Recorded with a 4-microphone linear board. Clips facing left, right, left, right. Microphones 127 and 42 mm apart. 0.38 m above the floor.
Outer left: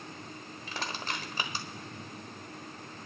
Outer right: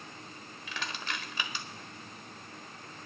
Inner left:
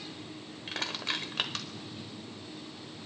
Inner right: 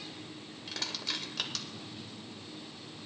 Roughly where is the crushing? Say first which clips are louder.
Outer left 2 dB, inner left 4 dB; left.